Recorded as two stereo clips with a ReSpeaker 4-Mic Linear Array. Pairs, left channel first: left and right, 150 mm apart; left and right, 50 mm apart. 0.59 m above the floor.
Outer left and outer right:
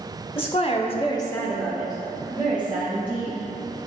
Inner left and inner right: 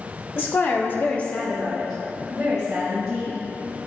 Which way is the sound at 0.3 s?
35° left (ahead or behind).